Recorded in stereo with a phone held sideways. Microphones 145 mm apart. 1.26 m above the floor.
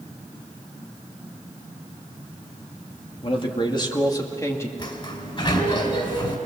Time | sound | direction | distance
3.2 | a man speaking | 40° left (ahead or behind) | 2 m
4.8 | a sliding door | 40° left (ahead or behind) | 2.5 m